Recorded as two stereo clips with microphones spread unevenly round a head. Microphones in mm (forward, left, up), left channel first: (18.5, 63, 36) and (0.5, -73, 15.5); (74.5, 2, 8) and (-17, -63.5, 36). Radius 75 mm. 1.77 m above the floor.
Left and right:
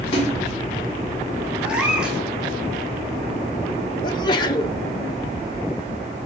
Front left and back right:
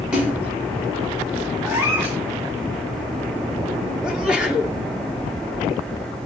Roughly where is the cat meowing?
Behind.